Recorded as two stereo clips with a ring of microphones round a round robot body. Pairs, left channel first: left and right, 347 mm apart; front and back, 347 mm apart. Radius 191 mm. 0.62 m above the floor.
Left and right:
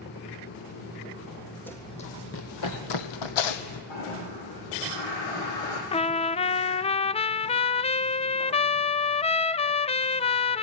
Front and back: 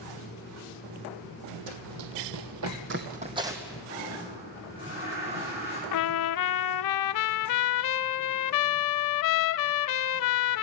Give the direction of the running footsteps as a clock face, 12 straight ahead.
6 o'clock.